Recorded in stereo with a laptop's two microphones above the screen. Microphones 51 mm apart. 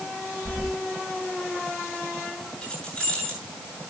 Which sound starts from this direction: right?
Keys jangling, at 0.5 s.